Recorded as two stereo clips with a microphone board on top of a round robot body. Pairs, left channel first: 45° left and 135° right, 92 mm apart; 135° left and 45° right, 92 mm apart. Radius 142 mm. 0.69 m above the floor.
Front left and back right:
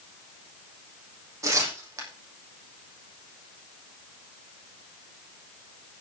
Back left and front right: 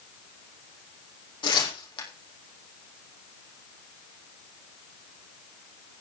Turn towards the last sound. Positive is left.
turn(degrees=165)